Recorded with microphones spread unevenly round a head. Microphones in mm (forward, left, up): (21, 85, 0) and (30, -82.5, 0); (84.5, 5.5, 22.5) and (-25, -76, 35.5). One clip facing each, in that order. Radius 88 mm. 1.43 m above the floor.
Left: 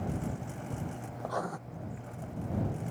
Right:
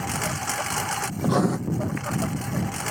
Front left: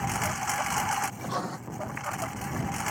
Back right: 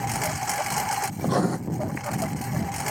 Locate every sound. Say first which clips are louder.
0.0 s a lawn mower: right 6 dB, back right 2 dB; 90° right
1.2 s writing: right 14 dB, back right 9 dB; 110° right